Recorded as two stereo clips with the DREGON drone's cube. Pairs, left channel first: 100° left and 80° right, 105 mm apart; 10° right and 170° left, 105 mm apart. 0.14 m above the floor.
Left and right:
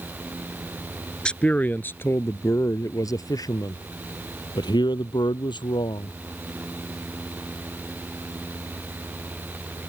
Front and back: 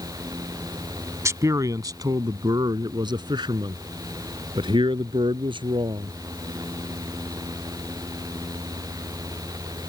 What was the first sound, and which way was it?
A man speaking, 170° left.